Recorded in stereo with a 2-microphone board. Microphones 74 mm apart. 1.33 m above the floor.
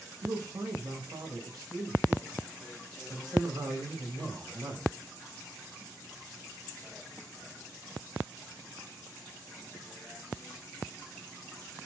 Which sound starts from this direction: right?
A man speaking, at 0.2 s.